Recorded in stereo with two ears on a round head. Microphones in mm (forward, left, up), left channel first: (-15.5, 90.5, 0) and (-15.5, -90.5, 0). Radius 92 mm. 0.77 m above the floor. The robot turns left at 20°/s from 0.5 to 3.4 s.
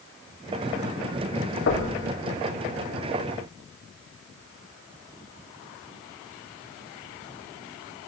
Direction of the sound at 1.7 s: 70° left (ahead or behind).